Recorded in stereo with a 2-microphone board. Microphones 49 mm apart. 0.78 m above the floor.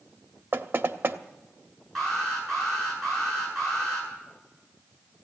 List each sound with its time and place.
0.5 s knocking: 45° right (ahead or behind), 0.9 m
1.9 s an alarm: 5° left (ahead or behind), 8 m